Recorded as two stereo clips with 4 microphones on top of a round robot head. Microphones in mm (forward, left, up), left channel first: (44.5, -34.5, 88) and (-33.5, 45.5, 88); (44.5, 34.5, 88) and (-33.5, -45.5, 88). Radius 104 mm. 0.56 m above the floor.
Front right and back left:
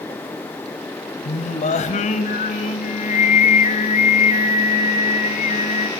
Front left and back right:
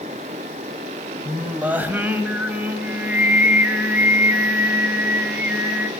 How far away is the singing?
About 1.7 m.